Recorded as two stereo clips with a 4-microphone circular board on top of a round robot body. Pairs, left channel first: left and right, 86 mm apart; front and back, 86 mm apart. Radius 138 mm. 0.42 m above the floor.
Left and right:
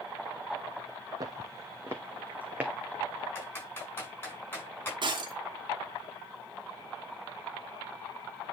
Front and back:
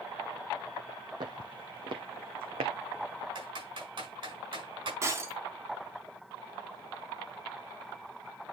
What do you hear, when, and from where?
1.2 s footsteps: 140° right, 1.0 m; by 3.2 s 170° right, 1.8 m
3.4 s typing on a keyboard: 155° left, 5.5 m
5.0 s breaking glass: 120° right, 2.5 m